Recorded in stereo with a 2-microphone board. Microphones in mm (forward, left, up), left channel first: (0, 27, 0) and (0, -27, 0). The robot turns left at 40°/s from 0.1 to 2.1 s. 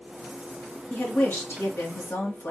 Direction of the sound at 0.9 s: 145° left.